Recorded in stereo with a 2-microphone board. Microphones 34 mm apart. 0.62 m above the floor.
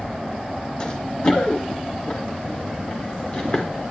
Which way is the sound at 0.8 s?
25° left (ahead or behind).